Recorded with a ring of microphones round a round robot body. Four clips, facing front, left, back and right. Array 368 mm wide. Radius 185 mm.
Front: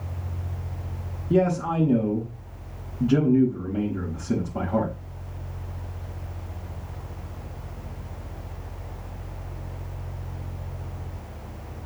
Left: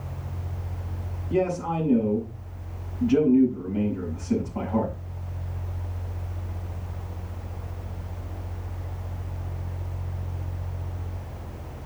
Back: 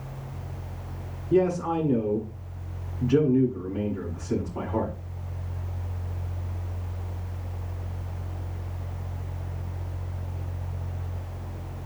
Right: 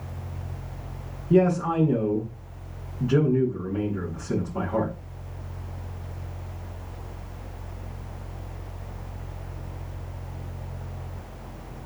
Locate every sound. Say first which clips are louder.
1.3 s a man speaking: right 4 dB, even; 20° right, 7 m